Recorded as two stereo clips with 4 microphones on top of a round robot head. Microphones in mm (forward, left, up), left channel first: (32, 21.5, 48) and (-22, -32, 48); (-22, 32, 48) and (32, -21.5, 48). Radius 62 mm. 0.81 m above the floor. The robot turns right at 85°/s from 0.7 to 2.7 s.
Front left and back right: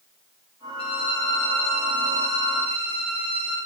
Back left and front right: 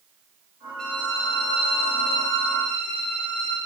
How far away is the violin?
About 0.5 m.